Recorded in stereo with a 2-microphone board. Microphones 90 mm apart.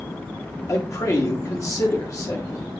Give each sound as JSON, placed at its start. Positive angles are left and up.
{"t": 0.7, "sound": "a man speaking", "side_deg": 40, "distance_m": 1.3}